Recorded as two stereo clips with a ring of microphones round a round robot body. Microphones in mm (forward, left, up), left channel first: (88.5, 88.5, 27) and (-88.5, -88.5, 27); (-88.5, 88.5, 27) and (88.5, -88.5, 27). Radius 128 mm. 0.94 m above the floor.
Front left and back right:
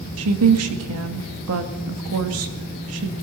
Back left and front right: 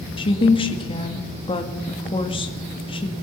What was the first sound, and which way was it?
A woman speaking, 155° right.